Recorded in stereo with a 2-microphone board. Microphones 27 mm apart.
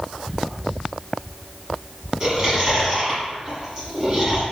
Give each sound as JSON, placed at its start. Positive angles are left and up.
{"t": 2.2, "sound": "chewing", "side_deg": -30, "distance_m": 2.0}